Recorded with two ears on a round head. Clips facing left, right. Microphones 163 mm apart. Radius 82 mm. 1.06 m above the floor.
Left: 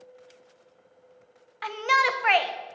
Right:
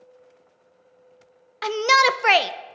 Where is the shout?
55° right (ahead or behind), 0.5 m.